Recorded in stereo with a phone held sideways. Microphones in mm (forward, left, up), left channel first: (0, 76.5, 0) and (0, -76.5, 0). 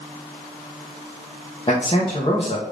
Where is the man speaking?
35° left (ahead or behind), 1.5 m.